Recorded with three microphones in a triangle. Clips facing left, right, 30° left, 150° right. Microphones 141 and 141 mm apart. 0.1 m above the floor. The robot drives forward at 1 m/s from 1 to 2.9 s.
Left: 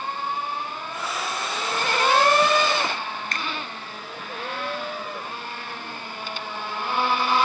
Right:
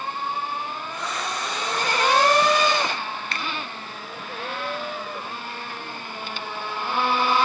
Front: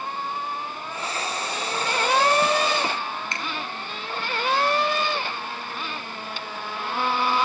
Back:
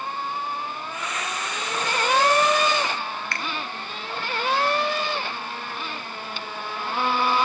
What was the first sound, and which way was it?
A finger snap, 90° left.